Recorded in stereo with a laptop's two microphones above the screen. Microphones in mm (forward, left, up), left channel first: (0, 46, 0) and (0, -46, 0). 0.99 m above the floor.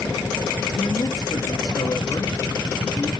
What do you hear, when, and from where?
0.7 s a man speaking: 50° left (ahead or behind), 1.9 m